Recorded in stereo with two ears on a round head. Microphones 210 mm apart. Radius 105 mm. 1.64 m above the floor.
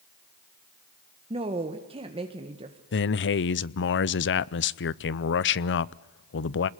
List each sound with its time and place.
1.3 s a woman speaking: 25° right (ahead or behind), 1.7 m
2.9 s a man speaking: 50° left (ahead or behind), 0.7 m